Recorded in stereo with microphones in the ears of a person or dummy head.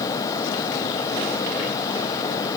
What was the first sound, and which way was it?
Only background noise.